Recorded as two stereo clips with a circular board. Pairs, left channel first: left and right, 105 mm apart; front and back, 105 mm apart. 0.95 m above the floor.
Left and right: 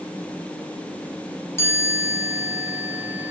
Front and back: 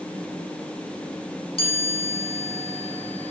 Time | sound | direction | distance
1.6 | a chime | 25° left | 9.5 m